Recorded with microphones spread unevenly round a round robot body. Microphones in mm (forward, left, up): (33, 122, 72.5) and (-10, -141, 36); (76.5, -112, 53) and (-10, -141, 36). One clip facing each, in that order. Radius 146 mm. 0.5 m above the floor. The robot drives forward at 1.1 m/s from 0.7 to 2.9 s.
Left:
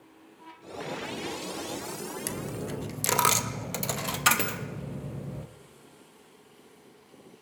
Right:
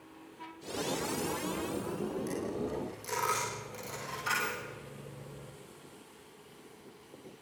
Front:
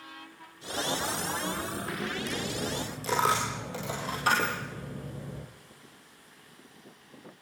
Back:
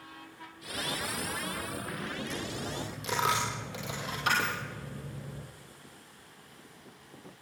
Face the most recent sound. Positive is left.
turn(degrees=95)